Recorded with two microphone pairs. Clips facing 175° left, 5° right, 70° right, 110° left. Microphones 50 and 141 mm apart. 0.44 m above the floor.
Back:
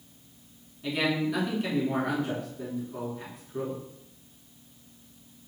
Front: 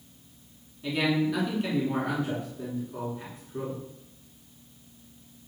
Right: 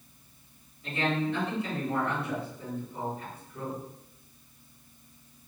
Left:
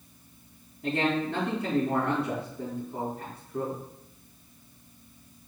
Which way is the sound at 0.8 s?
85° left.